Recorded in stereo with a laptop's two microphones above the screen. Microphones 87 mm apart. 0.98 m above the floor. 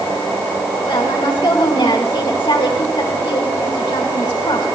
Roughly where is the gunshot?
I don't hear a gunshot.